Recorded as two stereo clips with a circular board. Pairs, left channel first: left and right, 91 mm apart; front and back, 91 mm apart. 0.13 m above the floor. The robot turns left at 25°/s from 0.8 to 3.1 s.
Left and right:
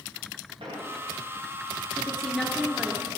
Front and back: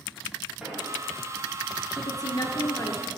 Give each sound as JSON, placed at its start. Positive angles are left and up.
{"t": 0.6, "sound": "an explosion", "azimuth_deg": -95, "distance_m": 4.0}
{"t": 1.9, "sound": "a woman speaking", "azimuth_deg": 15, "distance_m": 1.8}